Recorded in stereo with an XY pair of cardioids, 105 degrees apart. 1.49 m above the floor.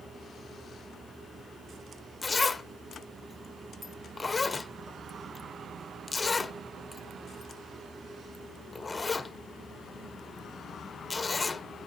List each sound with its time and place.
0.0 s a fan: 25° right, 3 m
2.2 s a zipper: 25° left, 0.8 m